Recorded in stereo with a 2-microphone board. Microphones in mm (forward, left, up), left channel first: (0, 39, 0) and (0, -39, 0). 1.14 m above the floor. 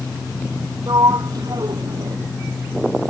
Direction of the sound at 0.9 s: 55° right (ahead or behind).